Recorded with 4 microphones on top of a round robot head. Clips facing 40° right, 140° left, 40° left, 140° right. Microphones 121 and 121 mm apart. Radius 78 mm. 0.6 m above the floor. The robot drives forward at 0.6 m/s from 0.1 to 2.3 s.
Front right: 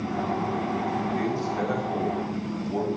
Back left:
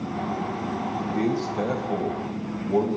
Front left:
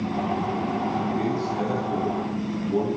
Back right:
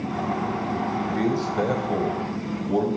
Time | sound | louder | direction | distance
1.1 | a man speaking | back left 2 dB, back right 1 dB | 155° right | 2.5 m